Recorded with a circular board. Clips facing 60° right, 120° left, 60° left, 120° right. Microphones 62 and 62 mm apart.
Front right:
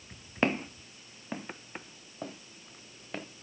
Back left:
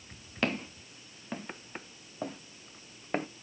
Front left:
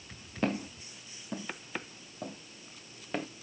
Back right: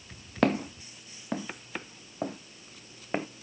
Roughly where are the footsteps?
Behind right.